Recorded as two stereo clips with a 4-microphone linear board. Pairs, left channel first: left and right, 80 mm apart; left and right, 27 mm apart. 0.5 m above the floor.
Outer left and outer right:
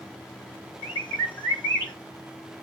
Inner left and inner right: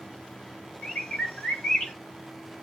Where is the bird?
55° left (ahead or behind), 8 m.